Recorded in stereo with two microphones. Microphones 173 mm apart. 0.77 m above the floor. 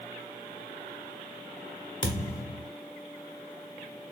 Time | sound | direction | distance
2.0 | a thud | 50° left (ahead or behind) | 1.0 m